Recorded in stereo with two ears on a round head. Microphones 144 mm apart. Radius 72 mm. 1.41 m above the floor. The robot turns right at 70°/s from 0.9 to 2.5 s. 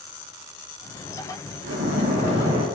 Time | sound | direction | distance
1.6 | a splash | 85° right | 2 m